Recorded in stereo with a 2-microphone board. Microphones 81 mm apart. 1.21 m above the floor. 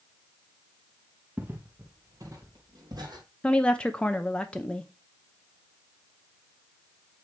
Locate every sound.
1.4 s footsteps: 20° right (ahead or behind), 1.4 m; by 3.2 s 55° right (ahead or behind), 2.5 m
3.4 s a woman speaking: 10° left (ahead or behind), 0.6 m